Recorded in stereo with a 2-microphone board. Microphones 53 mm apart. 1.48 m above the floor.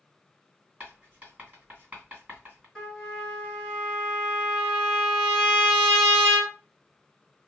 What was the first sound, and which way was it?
Writing, 35° right (ahead or behind).